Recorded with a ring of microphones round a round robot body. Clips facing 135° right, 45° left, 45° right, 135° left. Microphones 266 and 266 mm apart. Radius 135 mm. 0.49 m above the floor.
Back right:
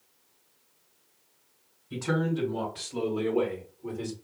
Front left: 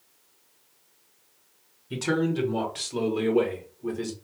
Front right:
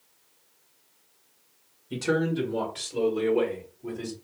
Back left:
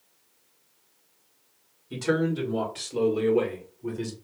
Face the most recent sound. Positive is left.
turn(degrees=90)